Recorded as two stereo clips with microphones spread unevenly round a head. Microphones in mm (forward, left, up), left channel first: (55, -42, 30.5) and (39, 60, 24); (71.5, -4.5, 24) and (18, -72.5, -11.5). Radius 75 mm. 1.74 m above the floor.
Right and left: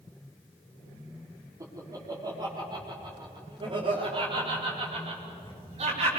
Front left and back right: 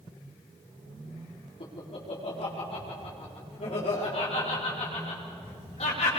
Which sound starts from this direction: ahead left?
Laughter, at 1.6 s.